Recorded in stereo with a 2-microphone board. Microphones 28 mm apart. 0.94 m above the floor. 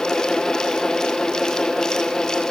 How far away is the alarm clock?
I don't hear an alarm clock.